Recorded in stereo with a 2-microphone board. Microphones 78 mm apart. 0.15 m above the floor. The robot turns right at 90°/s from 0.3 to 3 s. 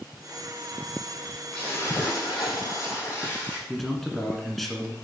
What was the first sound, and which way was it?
A splash, 10° left.